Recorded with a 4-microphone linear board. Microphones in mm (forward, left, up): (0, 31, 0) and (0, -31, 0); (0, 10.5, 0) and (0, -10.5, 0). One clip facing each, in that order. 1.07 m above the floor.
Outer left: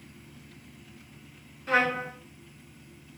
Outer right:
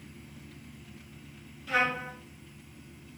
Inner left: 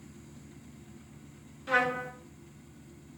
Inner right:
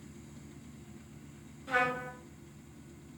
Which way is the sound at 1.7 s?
50° left (ahead or behind).